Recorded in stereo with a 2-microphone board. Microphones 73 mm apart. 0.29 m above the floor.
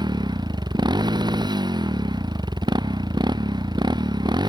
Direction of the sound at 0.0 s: 85° right.